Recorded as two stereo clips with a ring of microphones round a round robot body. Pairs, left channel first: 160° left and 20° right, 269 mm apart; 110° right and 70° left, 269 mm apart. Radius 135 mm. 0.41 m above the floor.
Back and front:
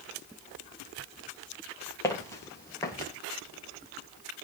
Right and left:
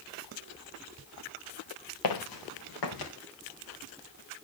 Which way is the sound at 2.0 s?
125° right.